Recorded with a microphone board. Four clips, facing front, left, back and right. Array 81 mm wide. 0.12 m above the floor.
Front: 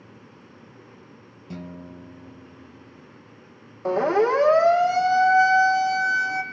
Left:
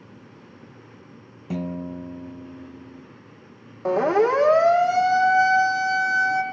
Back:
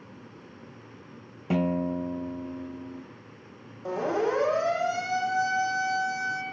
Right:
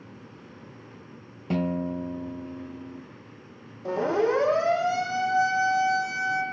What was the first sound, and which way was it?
A guitar, 160° right.